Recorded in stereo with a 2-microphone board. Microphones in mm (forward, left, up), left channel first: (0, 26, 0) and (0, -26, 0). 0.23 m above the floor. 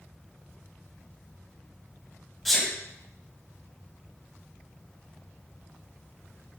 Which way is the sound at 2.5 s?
5° left (ahead or behind).